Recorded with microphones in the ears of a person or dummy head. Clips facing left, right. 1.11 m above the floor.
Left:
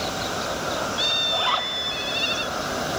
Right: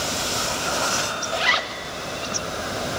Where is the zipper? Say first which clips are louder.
Even; 25° right (ahead or behind), 0.7 m.